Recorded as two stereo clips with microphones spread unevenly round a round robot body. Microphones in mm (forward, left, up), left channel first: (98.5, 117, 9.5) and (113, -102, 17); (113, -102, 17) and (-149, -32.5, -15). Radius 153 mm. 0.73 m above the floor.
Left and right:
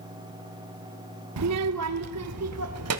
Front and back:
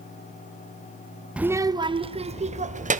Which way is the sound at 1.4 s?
110° right.